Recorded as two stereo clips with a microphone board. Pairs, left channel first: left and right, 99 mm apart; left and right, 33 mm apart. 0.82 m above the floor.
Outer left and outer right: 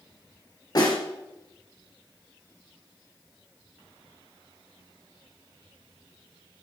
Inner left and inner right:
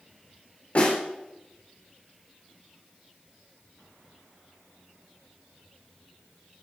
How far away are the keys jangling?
No keys jangling in this recording.